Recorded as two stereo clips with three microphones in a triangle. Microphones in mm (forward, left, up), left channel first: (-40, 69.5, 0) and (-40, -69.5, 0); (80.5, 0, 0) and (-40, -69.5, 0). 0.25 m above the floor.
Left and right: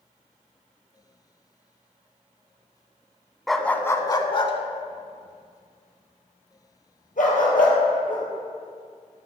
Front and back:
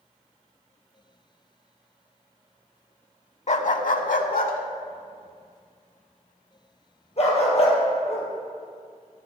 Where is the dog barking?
Straight ahead, 0.5 m; by 8.3 s 75° left, 2.5 m.